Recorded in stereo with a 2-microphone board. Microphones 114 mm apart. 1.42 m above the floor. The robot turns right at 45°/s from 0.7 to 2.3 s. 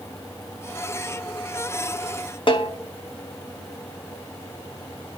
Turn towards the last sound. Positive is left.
turn(degrees=50)  # may be behind; listen again after turning